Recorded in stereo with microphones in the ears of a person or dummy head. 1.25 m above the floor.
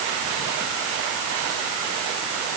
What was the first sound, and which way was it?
Only background noise.